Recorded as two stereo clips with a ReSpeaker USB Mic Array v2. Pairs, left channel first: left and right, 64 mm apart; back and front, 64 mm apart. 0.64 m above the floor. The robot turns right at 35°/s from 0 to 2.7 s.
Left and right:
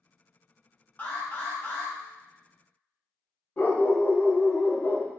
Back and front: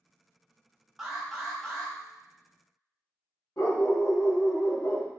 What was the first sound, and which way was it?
An alarm, 75° left.